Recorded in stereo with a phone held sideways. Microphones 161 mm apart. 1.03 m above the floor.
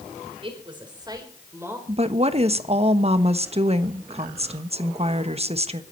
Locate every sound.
0.4 s a woman speaking: 35° right (ahead or behind), 4.5 m; by 1.8 s 15° right (ahead or behind), 4.5 m
1.9 s a woman speaking: 40° right (ahead or behind), 1.1 m